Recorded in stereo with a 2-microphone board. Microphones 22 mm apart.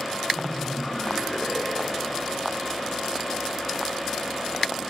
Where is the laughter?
45° left (ahead or behind), 5.5 m.